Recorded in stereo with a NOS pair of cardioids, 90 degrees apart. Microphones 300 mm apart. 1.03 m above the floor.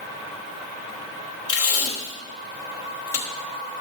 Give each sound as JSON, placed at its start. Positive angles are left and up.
{"t": 1.5, "sound": "tape being pulled", "azimuth_deg": 50, "distance_m": 3.0}